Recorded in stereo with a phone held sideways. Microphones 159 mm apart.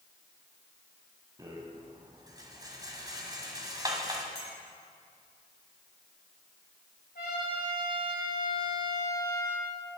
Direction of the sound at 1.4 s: 25° right (ahead or behind).